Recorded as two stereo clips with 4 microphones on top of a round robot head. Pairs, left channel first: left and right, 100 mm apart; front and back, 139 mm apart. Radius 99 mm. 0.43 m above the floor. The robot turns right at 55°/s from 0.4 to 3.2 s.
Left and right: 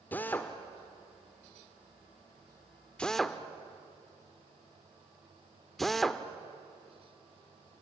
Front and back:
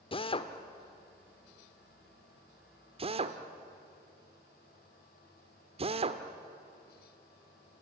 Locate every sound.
0.1 s a drill: 25° left, 1.4 m; by 6.2 s 175° left, 1.4 m